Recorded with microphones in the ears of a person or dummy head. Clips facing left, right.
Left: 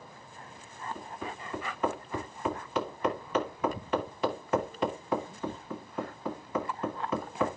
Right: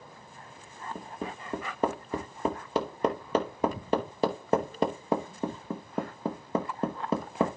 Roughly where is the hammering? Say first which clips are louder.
Right 2 dB; right.